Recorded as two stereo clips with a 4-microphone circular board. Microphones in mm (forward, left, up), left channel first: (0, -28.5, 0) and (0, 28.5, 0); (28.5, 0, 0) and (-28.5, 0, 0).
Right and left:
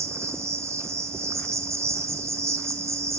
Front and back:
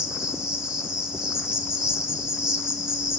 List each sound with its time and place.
0.0 s an insect: 105° left, 1.3 m